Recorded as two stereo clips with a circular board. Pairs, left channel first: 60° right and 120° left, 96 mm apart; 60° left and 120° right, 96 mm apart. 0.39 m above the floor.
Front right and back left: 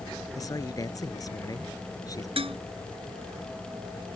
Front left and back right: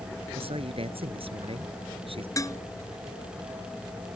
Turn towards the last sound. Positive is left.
turn(degrees=115)